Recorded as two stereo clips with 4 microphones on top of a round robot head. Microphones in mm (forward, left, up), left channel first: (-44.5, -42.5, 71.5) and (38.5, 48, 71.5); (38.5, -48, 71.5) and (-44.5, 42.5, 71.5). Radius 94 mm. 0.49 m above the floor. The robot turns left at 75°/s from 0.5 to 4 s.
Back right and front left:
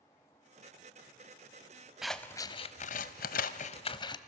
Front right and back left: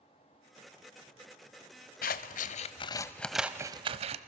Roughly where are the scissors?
Ahead right.